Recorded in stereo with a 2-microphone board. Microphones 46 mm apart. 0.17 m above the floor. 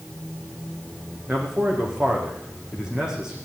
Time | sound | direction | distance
1.3 | a man speaking | 15° right (ahead or behind) | 8 m